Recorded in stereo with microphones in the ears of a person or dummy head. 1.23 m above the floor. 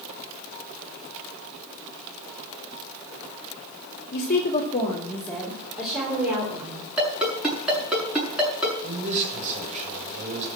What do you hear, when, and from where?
4.1 s a woman speaking: 55° left (ahead or behind), 2.0 m; by 6.9 s 15° right (ahead or behind), 4.5 m
7.0 s a ringtone: 5° right (ahead or behind), 7 m
8.8 s a man speaking: 35° right (ahead or behind), 6.5 m